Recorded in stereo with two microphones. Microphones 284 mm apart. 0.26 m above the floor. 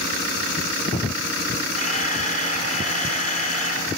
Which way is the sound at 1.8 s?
25° left (ahead or behind).